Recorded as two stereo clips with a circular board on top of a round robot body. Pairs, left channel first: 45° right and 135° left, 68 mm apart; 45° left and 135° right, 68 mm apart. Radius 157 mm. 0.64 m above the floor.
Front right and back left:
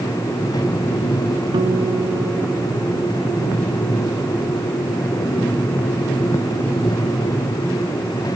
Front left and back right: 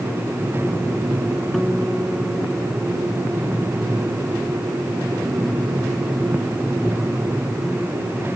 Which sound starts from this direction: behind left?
A guitar, at 1.5 s.